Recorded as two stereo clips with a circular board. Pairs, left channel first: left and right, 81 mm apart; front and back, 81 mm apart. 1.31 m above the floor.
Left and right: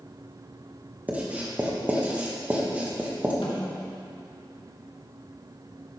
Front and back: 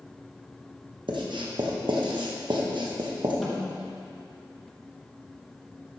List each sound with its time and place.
1.1 s writing: 165° right, 1.1 m
3.4 s a snare drum: 90° left, 1.6 m